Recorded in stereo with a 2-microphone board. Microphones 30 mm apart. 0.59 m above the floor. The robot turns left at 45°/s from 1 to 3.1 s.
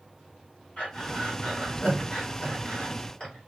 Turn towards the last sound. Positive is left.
turn(degrees=30)  # may be behind; listen again after turning